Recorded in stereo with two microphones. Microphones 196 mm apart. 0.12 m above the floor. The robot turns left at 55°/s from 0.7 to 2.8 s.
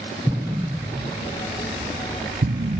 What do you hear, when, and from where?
0.3 s an explosion: 10° right (ahead or behind), 0.6 m; by 2.8 s 45° right (ahead or behind), 0.6 m